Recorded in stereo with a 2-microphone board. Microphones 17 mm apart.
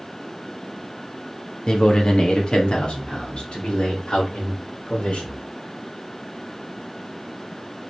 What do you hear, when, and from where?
1.7 s a man speaking: 45° left (ahead or behind), 1.4 m; by 5.3 s 70° left (ahead or behind), 4 m